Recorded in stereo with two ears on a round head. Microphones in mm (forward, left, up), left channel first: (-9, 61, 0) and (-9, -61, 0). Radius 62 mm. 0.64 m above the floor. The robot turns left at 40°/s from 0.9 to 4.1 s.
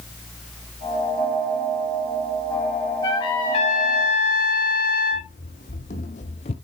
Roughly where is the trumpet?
Behind left.